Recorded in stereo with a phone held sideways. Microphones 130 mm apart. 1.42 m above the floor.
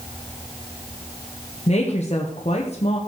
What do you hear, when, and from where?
1.7 s a woman speaking: 55° left (ahead or behind), 1.4 m